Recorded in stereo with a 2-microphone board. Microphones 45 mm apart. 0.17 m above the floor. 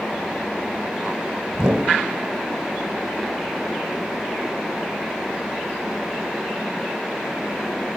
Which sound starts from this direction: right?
A whoosh, at 1.5 s.